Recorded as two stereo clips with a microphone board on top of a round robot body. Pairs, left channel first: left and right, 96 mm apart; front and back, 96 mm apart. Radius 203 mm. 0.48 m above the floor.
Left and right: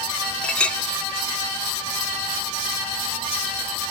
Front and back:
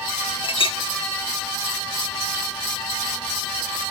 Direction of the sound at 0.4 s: 10° left.